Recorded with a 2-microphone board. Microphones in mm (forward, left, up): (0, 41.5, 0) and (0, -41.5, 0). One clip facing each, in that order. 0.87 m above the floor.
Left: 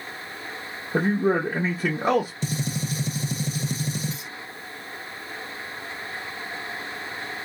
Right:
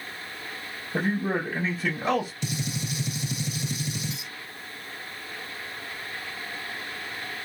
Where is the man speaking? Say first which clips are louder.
Left 5 dB; 45° left (ahead or behind), 1.0 m.